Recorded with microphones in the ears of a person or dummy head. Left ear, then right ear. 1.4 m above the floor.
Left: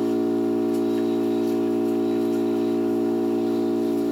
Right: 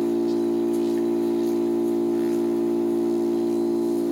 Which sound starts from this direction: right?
An engine running, at 0.0 s.